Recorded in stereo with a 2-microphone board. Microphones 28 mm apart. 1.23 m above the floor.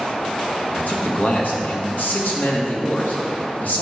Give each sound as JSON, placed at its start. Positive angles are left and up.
{"t": 0.8, "sound": "a man speaking", "side_deg": 75, "distance_m": 1.8}